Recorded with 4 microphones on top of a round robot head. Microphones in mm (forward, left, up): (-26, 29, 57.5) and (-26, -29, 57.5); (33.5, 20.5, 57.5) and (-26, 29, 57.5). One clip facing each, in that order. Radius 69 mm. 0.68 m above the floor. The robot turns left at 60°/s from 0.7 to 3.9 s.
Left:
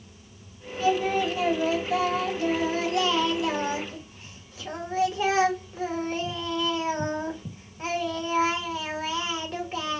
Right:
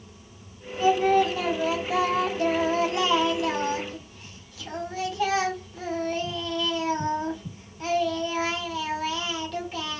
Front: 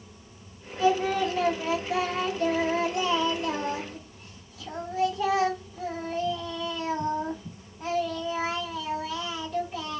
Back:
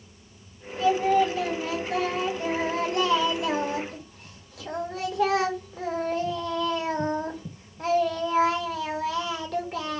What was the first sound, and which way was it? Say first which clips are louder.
Singing: right 4 dB, back 3 dB; 20° right.